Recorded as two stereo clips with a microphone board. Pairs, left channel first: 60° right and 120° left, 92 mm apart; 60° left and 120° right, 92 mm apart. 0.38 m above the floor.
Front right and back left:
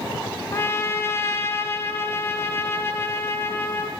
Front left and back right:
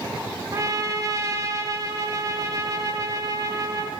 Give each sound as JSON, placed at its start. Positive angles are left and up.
{"t": 0.5, "sound": "a trumpet", "azimuth_deg": -100, "distance_m": 0.5}